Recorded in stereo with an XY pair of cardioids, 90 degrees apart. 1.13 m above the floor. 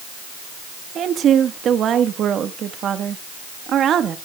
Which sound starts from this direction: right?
A woman speaking, at 0.9 s.